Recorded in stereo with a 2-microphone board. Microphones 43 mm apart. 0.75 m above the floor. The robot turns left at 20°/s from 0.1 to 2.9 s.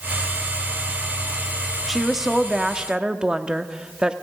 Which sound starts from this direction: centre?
A woman speaking, at 1.9 s.